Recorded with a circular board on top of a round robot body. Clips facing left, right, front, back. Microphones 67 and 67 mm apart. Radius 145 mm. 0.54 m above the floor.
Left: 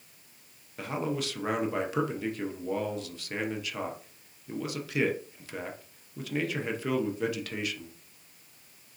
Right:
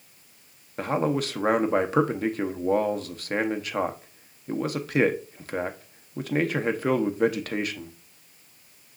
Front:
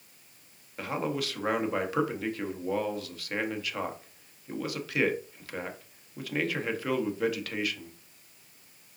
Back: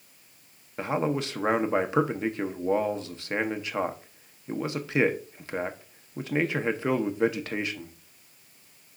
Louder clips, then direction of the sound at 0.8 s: Right 7 dB, back 4 dB; 120° right.